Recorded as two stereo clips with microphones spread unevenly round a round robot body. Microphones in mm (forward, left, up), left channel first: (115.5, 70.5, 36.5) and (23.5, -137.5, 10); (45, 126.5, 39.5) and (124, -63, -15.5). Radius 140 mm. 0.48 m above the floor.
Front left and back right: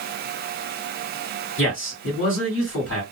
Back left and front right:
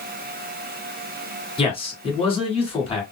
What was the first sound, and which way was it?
A man speaking, 45° left.